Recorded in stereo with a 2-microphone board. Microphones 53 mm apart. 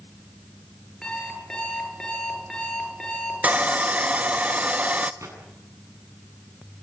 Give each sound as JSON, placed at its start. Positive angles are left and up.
{"t": 1.0, "sound": "an alarm clock", "side_deg": 15, "distance_m": 9.5}
{"t": 3.4, "sound": "sawing", "side_deg": -30, "distance_m": 1.1}
{"t": 5.2, "sound": "a gunshot", "side_deg": -75, "distance_m": 7.5}